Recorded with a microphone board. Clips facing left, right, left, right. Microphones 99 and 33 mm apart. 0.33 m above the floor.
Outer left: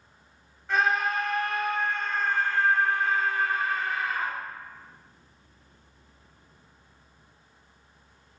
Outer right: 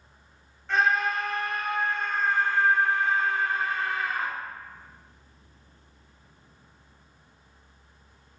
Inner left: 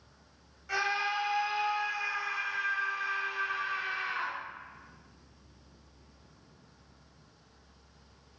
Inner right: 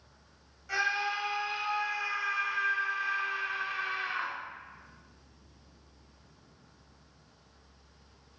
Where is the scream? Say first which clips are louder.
Outer right 1 dB, even; 5° left (ahead or behind), 1.6 m; by 4.3 s 35° right (ahead or behind), 1.3 m.